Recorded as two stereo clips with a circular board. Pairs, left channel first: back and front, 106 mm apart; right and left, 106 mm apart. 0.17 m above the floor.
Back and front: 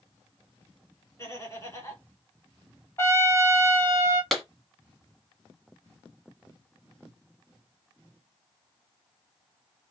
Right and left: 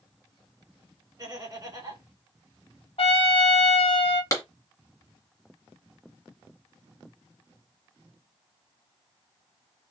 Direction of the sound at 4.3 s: 90° right.